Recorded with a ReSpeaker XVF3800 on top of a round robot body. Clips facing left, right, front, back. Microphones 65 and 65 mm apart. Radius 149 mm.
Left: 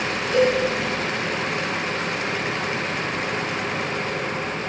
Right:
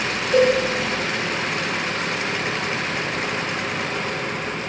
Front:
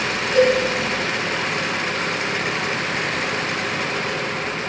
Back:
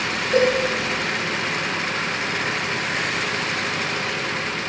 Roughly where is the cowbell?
Behind right.